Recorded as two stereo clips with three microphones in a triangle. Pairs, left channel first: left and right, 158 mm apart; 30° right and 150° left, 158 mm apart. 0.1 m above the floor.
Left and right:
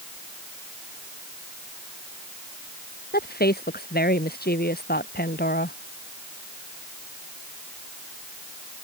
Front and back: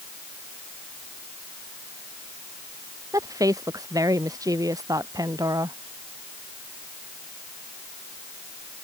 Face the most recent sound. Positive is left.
turn(degrees=85)